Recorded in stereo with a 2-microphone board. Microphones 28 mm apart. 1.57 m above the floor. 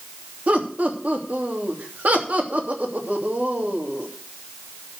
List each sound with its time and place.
0.5 s laughter: 65° right (ahead or behind), 3 m